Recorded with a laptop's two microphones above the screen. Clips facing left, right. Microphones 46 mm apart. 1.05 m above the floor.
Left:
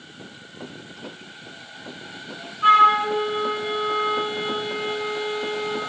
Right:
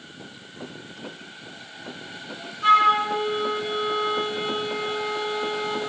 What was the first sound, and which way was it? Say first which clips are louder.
A flute: left 3 dB; 25° left (ahead or behind).